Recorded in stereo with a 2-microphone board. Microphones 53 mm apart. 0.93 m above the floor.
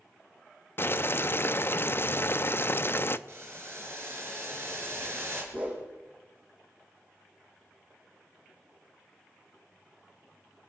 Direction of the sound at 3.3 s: 50° right (ahead or behind).